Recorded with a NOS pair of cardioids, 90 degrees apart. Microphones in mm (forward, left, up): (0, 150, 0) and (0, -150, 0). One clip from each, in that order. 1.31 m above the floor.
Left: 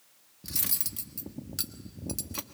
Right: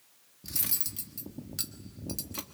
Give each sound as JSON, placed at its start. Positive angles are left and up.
{"t": 0.4, "sound": "cutlery clinking", "azimuth_deg": 10, "distance_m": 1.4}